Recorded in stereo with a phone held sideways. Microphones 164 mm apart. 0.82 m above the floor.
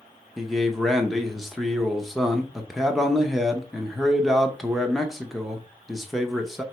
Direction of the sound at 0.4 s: Centre (ahead or behind).